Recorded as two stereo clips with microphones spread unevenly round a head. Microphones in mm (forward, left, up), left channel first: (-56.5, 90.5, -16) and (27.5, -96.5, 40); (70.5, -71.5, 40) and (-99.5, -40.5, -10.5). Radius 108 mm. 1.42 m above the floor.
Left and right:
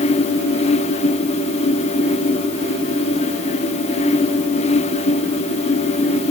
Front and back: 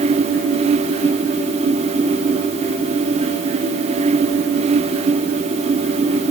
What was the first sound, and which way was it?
Only background noise.